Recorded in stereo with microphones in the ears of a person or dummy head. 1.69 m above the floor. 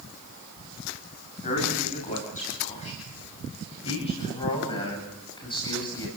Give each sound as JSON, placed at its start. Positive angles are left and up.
{"t": 1.4, "sound": "a man speaking", "side_deg": 45, "distance_m": 9.0}